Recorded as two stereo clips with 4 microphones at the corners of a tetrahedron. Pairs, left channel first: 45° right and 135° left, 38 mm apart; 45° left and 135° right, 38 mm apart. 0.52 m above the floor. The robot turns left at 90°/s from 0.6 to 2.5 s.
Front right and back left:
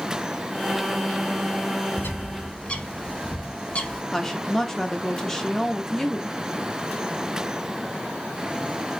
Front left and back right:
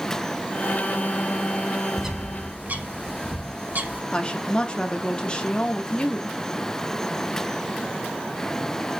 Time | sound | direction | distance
2.0 | a bird | 55° right | 0.7 m
4.1 | a woman speaking | 25° left | 0.8 m